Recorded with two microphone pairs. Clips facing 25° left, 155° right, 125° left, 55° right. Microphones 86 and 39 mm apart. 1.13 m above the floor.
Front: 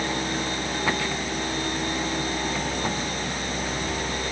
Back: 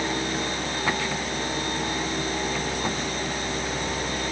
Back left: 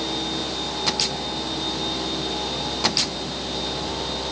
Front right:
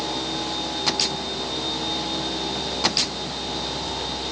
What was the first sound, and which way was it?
Only background noise.